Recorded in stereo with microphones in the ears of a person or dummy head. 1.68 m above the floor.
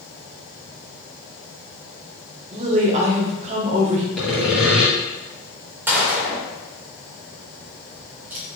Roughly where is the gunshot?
Centre.